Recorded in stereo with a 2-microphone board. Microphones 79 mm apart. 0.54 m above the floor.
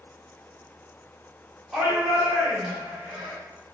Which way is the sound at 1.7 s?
Centre (ahead or behind).